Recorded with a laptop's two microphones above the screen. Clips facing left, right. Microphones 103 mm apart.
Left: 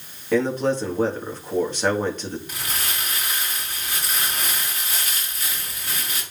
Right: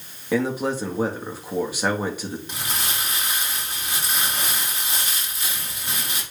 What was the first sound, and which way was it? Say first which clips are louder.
A man speaking: left 2 dB; 10° right (ahead or behind).